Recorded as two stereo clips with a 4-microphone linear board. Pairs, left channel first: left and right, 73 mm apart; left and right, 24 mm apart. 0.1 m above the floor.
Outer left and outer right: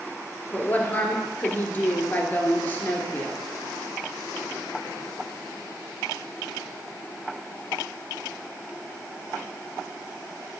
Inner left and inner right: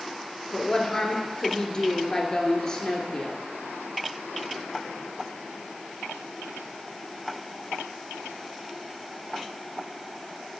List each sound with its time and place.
0.5 s a woman speaking: 20° left (ahead or behind), 2.0 m